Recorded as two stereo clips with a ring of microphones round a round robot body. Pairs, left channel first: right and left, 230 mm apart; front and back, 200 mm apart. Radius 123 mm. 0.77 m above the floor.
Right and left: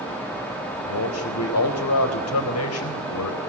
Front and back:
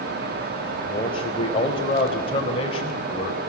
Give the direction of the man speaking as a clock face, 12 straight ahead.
2 o'clock.